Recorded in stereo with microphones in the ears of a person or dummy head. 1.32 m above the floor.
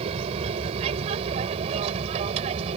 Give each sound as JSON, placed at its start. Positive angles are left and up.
{"t": 0.0, "sound": "an aircraft", "side_deg": -35}